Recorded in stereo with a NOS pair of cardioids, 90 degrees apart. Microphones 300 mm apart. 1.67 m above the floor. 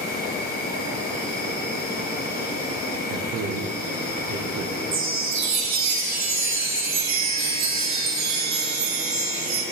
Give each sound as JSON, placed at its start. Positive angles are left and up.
{"t": 0.0, "sound": "an insect", "azimuth_deg": 30, "distance_m": 2.0}
{"t": 3.1, "sound": "a man speaking", "azimuth_deg": -65, "distance_m": 0.8}
{"t": 4.9, "sound": "a chime", "azimuth_deg": -65, "distance_m": 1.3}